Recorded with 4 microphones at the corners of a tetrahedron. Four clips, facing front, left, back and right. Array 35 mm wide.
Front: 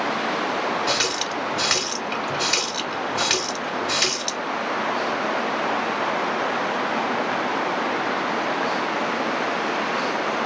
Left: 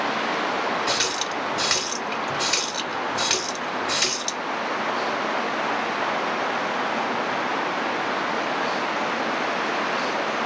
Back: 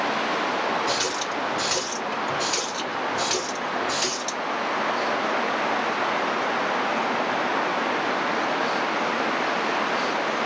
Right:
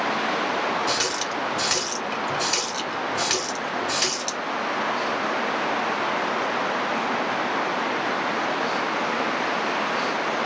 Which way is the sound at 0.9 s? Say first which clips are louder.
Left 1 dB, front 2 dB; 5° left.